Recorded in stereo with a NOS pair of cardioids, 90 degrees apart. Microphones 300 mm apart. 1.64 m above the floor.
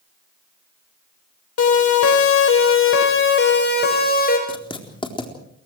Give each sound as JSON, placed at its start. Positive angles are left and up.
{"t": 1.6, "sound": "a siren", "azimuth_deg": 60, "distance_m": 6.5}
{"t": 4.5, "sound": "writing", "azimuth_deg": 15, "distance_m": 4.0}